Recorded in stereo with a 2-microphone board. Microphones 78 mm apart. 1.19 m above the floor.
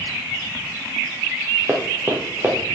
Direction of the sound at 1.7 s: 25° right (ahead or behind).